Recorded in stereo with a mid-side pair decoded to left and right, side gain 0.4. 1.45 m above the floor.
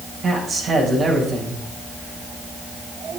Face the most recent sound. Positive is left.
turn(degrees=-60)